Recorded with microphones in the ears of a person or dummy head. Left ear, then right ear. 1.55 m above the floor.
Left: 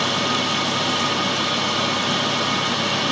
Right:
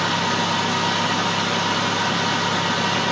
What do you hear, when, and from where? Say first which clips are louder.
0.0 s a fan: even; 50° right (ahead or behind), 1.2 m